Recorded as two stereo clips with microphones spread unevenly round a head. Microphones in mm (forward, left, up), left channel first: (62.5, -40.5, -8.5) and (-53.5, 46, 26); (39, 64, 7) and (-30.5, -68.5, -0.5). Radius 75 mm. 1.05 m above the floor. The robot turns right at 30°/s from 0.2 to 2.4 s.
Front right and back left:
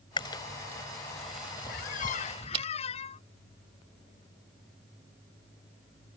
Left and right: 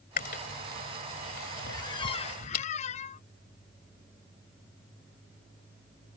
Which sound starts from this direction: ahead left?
Chewing, at 0.2 s.